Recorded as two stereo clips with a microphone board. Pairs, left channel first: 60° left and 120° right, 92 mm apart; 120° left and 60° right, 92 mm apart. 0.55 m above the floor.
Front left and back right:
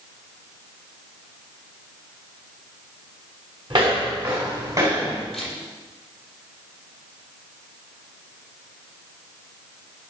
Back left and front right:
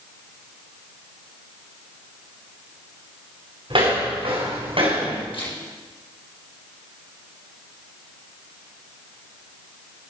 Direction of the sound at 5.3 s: 145° left.